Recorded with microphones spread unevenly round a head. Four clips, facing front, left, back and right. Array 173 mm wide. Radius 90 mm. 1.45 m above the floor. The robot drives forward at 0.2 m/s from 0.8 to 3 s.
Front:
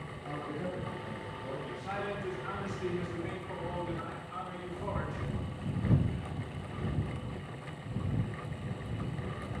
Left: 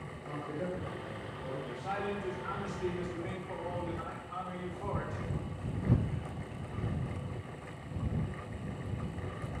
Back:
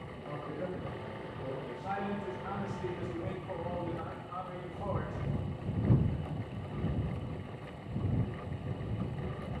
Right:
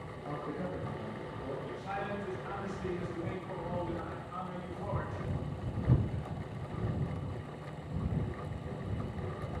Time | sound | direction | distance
0.2 | a man speaking | 105° right | 1.7 m
1.6 | a man speaking | 175° right | 1.6 m